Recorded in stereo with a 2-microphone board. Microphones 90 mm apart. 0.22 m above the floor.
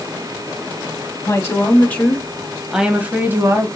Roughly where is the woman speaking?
Left.